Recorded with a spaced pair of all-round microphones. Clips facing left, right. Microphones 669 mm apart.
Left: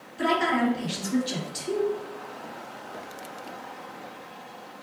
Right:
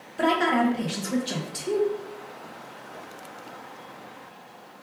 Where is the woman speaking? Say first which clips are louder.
Right 2 dB; 75° right (ahead or behind), 1.0 m.